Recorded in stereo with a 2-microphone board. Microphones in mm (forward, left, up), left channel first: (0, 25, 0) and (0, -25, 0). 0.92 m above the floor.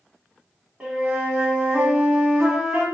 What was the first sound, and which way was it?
A flute, 30° right (ahead or behind).